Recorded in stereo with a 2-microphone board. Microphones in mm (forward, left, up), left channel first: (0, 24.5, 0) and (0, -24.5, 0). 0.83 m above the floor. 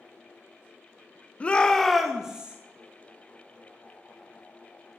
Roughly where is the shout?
Left.